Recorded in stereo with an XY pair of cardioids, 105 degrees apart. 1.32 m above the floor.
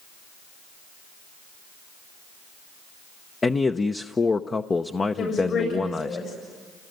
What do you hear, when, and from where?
3.4 s a man speaking: 30° left, 0.8 m
5.2 s a woman speaking: 55° left, 7.5 m